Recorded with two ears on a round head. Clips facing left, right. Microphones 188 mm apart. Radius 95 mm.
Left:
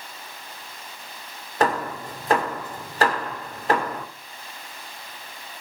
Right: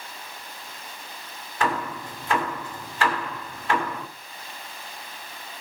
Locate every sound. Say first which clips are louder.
1.6 s hammering: left 4 dB; 35° left (ahead or behind), 2.5 m